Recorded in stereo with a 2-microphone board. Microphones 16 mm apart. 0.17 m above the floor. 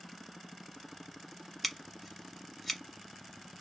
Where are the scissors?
Centre (ahead or behind), 1.1 m.